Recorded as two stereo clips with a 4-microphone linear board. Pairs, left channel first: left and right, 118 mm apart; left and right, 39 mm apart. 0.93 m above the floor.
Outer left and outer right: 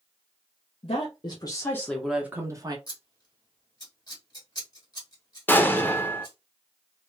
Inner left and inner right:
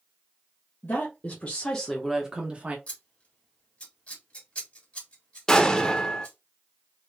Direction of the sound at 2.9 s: 30° left (ahead or behind).